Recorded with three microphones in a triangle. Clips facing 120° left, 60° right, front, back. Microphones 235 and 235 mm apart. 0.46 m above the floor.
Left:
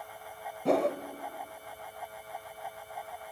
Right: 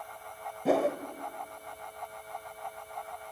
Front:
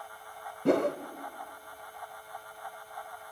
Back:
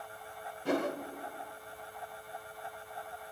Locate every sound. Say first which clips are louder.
0.7 s a whoosh: even, front 6 dB; 25° left, 1.2 m